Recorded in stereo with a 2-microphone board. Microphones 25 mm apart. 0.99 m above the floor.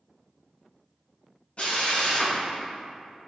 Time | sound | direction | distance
1.6 | a drill | 45° left (ahead or behind) | 1.5 m